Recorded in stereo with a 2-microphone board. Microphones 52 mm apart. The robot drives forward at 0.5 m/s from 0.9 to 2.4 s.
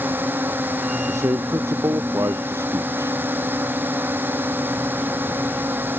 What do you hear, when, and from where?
0.0 s a drone: 40° right (ahead or behind)
1.1 s a man speaking: 75° right (ahead or behind)